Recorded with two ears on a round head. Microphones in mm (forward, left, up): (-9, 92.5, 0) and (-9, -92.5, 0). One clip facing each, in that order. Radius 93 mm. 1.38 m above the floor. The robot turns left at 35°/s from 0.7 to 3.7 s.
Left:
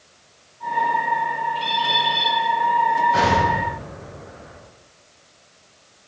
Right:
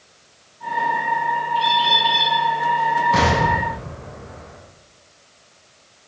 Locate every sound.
1.6 s a bird: 5° right (ahead or behind), 7 m; by 2.3 s 35° right (ahead or behind), 7 m
3.1 s an explosion: 85° right, 7.5 m; by 4.6 s 70° right (ahead or behind), 7.5 m